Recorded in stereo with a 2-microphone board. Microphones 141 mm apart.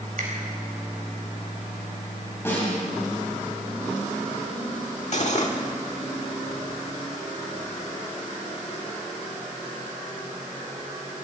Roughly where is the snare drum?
Centre.